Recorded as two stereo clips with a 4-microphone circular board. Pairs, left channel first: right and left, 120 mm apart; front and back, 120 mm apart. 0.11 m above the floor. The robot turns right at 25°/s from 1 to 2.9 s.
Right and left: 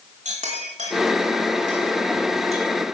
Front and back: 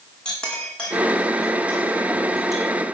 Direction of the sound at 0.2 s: 80° left.